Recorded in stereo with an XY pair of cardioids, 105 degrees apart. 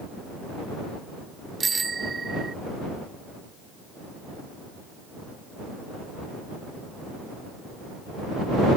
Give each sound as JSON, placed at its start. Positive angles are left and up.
{"t": 1.6, "sound": "a bicycle bell", "azimuth_deg": -30}